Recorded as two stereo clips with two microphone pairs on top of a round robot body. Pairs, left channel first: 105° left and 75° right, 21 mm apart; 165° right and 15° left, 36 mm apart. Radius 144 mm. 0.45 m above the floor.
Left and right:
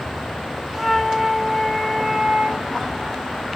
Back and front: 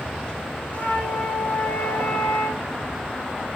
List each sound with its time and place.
0.7 s a flute: straight behind, 1.4 m